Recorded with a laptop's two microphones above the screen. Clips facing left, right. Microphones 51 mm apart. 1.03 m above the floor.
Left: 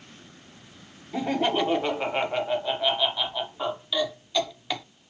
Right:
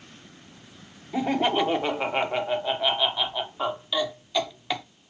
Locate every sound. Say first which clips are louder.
1.1 s laughter: right 1 dB; 15° right (ahead or behind), 0.5 m